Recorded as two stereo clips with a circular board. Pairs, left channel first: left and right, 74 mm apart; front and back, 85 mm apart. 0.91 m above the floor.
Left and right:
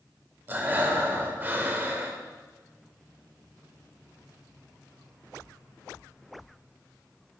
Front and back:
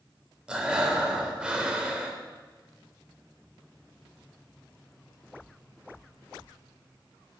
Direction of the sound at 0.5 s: 115° right.